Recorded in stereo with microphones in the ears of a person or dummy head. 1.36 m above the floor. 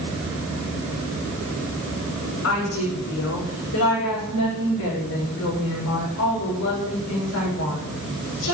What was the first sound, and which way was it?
A woman speaking, 80° left.